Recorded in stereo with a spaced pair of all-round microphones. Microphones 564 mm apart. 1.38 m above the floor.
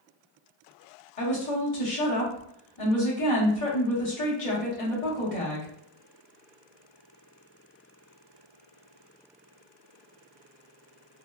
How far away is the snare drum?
I don't hear a snare drum.